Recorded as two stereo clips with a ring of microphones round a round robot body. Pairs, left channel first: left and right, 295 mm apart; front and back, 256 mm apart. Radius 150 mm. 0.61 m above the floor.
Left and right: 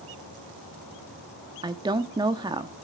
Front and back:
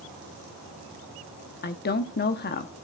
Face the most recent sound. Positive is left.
turn(degrees=-20)